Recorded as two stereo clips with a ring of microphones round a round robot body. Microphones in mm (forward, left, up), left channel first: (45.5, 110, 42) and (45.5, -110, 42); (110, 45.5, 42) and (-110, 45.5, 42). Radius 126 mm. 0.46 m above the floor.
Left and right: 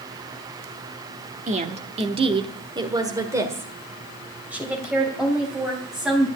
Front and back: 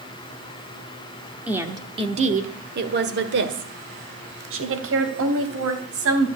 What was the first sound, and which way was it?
A woman speaking, 100° right.